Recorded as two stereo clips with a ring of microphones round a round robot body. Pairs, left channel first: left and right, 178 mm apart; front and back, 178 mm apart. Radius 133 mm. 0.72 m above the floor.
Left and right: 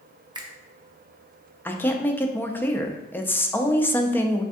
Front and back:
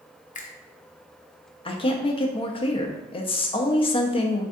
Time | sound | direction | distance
0.3 | a finger snap | 30° right | 0.7 m
1.6 | a woman speaking | 20° left | 0.5 m